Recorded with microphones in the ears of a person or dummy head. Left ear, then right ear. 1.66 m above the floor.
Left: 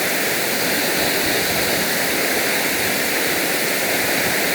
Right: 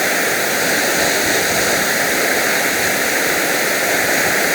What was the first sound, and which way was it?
Running water, 30° right (ahead or behind).